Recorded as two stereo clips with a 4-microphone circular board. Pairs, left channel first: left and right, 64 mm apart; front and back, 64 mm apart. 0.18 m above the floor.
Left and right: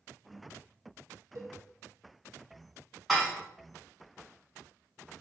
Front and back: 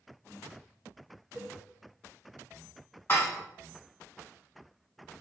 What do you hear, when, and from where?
1.4 s a cowbell: 115° right, 0.7 m
3.1 s dishes clattering: straight ahead, 0.9 m